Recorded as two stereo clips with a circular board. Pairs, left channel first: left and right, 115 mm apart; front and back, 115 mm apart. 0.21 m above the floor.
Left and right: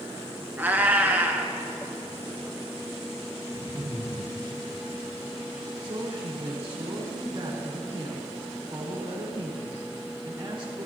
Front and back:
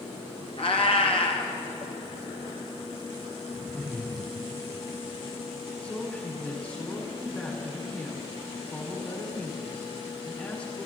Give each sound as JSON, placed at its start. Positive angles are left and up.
{"t": 0.6, "sound": "a cat meowing", "azimuth_deg": -15, "distance_m": 1.2}
{"t": 3.5, "sound": "laughter", "azimuth_deg": 75, "distance_m": 4.0}
{"t": 5.8, "sound": "a woman speaking", "azimuth_deg": -60, "distance_m": 1.7}